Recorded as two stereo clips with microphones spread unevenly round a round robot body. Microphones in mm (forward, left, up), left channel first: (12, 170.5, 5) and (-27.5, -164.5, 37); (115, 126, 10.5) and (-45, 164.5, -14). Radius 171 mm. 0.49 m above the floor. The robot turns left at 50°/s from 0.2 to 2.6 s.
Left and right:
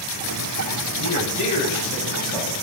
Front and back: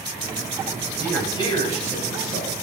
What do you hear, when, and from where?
1.0 s a man speaking: 80° left, 3 m; by 2.5 s straight ahead, 3 m